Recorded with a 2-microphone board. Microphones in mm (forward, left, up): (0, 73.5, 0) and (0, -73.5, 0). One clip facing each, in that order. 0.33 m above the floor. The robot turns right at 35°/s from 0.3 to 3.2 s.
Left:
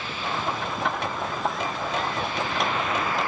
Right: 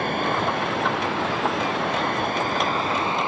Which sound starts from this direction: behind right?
Running water, at 0.0 s.